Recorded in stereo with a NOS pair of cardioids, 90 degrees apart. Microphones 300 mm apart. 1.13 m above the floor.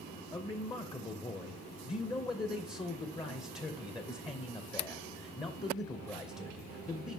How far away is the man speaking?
About 0.7 m.